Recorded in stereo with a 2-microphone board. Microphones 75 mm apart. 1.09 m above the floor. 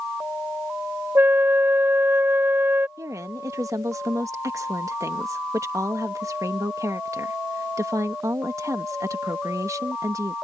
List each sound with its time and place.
1.1 s a flute: 30° right (ahead or behind)
3.0 s a woman speaking: 45° right (ahead or behind)